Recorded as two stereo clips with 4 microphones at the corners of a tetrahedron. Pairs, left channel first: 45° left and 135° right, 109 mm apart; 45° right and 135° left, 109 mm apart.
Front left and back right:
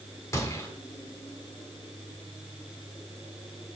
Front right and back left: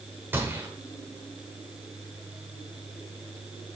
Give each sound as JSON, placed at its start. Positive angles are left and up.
{"t": 0.3, "sound": "a gunshot", "azimuth_deg": 80, "distance_m": 1.2}